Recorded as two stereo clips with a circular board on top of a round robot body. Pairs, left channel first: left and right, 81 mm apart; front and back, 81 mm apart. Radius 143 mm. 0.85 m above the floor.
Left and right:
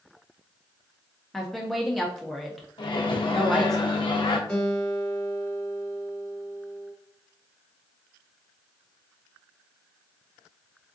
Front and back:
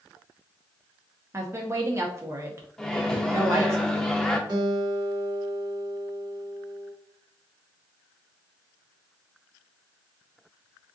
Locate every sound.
1.3 s a woman speaking: 175° left, 0.7 m
2.8 s a microwave: 85° left, 0.7 m
4.5 s a guitar: 170° left, 1.6 m